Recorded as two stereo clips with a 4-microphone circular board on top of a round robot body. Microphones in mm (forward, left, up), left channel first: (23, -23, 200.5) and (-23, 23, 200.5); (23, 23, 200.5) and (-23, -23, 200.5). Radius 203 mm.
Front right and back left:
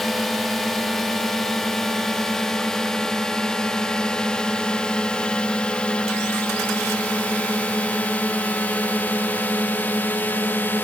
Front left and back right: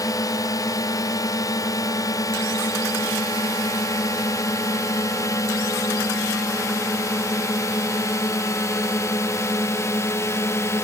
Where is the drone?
45° left; by 10.9 s 10° left.